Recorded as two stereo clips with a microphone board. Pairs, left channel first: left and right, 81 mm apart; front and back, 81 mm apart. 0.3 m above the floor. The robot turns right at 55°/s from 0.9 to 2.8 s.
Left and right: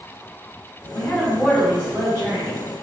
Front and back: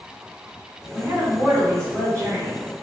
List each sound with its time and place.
0.9 s a woman speaking: 155° left, 2.0 m; by 2.6 s 110° right, 2.0 m